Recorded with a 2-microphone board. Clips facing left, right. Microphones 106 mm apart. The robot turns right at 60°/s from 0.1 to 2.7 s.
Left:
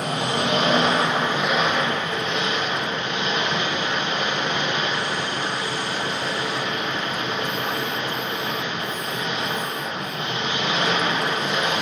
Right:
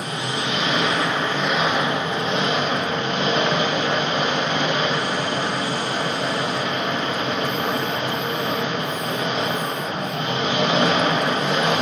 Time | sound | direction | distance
0.0 | an engine running | 95° left | 0.8 m